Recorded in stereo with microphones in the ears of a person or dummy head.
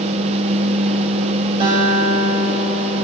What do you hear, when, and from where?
0.0 s a fan: 35° right (ahead or behind), 1.0 m
1.6 s a guitar: 30° right (ahead or behind), 3 m